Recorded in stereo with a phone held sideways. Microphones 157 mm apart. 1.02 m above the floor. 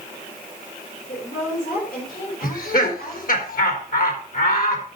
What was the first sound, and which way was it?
A woman speaking, 70° left (ahead or behind).